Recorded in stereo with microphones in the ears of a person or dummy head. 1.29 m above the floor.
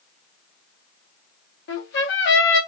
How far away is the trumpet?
About 1.2 m.